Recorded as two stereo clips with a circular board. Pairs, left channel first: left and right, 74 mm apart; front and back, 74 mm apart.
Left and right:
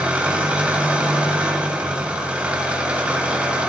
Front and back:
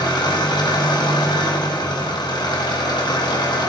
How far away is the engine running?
About 1.7 m.